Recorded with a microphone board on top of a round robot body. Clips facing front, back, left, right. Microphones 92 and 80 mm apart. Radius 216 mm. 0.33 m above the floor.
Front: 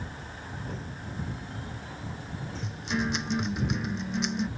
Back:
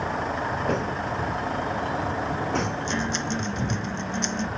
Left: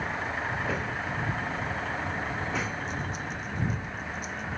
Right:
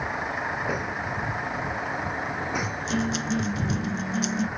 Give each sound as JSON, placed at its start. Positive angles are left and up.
{"t": 0.0, "sound": "a vehicle", "azimuth_deg": -165}
{"t": 2.6, "sound": "a guitar", "azimuth_deg": -85}